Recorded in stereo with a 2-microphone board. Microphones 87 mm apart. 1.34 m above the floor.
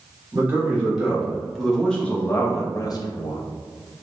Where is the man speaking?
15° right (ahead or behind), 1.5 m; by 3.4 s 65° left (ahead or behind), 0.7 m.